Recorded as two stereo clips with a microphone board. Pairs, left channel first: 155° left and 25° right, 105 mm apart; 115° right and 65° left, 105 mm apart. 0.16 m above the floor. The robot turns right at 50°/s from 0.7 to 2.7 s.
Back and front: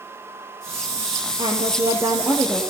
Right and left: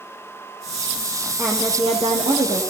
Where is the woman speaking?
10° left, 7 m; by 2.6 s 70° left, 7 m.